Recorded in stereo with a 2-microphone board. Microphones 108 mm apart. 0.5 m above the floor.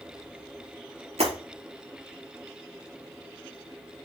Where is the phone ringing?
No phone ringing in this recording.